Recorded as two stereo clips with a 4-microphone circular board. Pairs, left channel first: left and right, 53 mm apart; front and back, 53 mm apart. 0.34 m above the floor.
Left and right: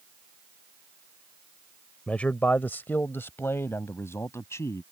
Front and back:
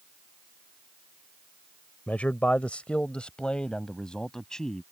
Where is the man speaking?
40° left; by 4.8 s 75° left.